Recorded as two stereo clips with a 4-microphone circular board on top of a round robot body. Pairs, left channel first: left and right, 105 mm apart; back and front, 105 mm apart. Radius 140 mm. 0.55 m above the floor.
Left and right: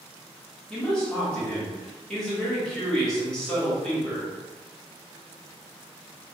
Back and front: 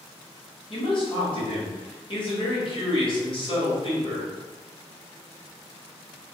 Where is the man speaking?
170° left, 1.6 m.